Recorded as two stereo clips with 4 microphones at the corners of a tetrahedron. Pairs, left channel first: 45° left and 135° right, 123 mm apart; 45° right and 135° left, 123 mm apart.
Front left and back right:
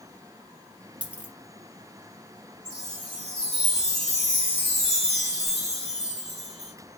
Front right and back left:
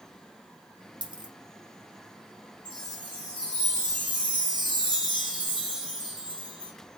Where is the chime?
175° right, 3 m.